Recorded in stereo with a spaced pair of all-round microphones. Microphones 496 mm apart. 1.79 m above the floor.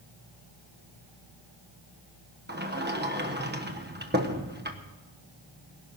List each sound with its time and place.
2.5 s a sliding door: 20° right (ahead or behind), 1.2 m